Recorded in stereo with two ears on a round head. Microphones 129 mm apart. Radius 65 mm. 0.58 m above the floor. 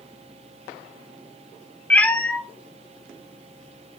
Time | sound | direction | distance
1.9 | a cat meowing | 10° left (ahead or behind) | 0.9 m